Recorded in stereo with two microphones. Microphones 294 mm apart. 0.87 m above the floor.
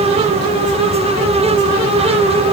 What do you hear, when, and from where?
Only background noise.